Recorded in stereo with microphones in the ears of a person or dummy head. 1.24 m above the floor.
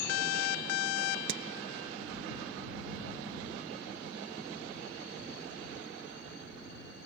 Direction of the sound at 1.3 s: 80° right.